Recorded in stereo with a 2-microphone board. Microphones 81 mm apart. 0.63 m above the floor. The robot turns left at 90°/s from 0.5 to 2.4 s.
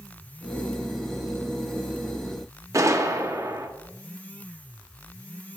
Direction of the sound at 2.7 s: 40° right (ahead or behind).